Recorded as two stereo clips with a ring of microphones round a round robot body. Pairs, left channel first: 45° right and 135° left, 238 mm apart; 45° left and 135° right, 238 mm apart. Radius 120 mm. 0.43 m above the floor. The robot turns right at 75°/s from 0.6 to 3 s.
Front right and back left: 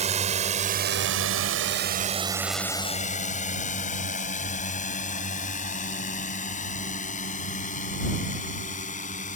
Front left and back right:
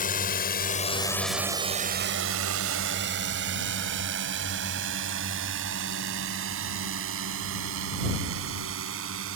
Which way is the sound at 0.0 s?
85° left.